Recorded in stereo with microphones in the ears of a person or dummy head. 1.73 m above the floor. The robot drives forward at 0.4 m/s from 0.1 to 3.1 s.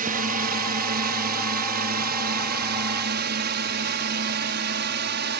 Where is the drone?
40° right (ahead or behind); by 5.4 s 50° right (ahead or behind).